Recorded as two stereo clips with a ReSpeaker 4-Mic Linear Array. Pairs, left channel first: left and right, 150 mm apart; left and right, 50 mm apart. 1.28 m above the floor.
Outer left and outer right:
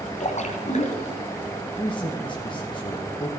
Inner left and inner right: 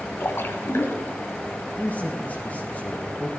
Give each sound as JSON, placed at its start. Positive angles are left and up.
{"t": 0.2, "sound": "a splash", "side_deg": 50, "distance_m": 1.8}
{"t": 1.8, "sound": "a man speaking", "side_deg": 30, "distance_m": 1.5}